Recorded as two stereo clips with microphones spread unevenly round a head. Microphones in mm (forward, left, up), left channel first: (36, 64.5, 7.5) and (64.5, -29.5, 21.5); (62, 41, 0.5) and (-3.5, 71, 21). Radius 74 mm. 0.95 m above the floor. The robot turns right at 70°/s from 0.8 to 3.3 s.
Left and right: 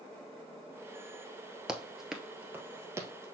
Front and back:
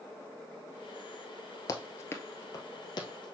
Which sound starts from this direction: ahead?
Running footsteps, at 1.7 s.